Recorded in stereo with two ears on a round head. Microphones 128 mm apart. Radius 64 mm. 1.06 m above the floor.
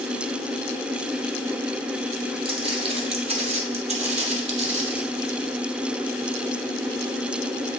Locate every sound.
2.5 s footsteps: 40° right (ahead or behind), 1.7 m; by 5.0 s 45° right (ahead or behind), 1.7 m